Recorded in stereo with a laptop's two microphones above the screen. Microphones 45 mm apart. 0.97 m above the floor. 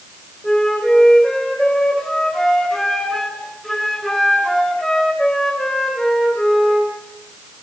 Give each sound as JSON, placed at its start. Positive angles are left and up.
{"t": 0.4, "sound": "a flute", "side_deg": 15, "distance_m": 2.5}